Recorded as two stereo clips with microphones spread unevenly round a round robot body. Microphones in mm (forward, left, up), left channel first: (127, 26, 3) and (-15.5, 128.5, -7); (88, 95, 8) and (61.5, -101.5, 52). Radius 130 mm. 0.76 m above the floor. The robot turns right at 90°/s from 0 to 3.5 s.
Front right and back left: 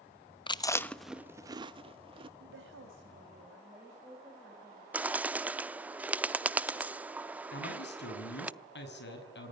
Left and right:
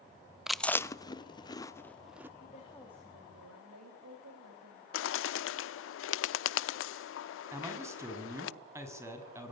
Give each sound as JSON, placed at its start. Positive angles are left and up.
{"t": 0.5, "sound": "chewing", "azimuth_deg": 10, "distance_m": 0.9}
{"t": 2.4, "sound": "a woman speaking", "azimuth_deg": 130, "distance_m": 4.0}
{"t": 4.9, "sound": "a bird", "azimuth_deg": 60, "distance_m": 0.6}
{"t": 7.5, "sound": "a man speaking", "azimuth_deg": -20, "distance_m": 6.5}